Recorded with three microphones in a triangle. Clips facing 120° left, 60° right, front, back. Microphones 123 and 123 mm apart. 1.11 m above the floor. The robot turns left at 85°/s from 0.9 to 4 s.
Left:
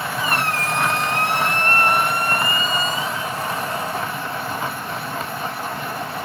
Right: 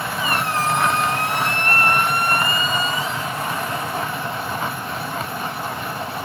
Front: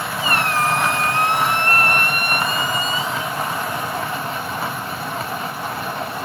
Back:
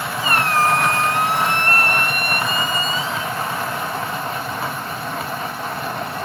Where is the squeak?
135° left, 3 m; by 3.4 s 75° right, 3 m.